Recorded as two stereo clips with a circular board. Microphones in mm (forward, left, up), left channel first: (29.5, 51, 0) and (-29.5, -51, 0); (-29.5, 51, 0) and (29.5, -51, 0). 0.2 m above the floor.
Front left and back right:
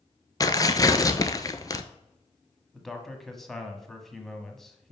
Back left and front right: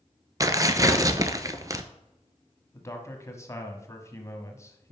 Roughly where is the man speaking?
Behind left.